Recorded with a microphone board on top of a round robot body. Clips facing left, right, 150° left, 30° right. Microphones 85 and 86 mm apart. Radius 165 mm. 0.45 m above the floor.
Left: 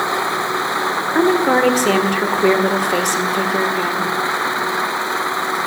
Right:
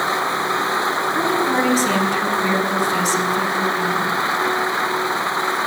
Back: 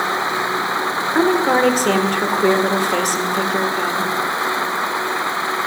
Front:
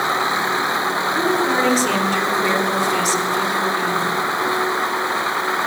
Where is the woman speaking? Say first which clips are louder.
Left 7 dB, back 5 dB; 115° left, 2 m.